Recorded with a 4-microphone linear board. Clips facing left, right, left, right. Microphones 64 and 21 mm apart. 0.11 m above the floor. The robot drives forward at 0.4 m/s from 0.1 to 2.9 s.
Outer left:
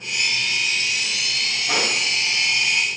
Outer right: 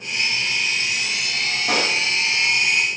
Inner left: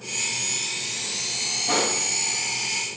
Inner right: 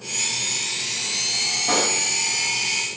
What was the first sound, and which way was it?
A pop, 65° right (ahead or behind).